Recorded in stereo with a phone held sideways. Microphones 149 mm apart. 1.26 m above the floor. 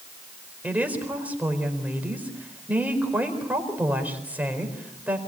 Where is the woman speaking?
10° right (ahead or behind), 4.5 m.